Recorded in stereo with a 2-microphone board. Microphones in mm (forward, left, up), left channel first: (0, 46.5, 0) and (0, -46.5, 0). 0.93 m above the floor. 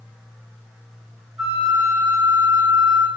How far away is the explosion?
I don't hear an explosion.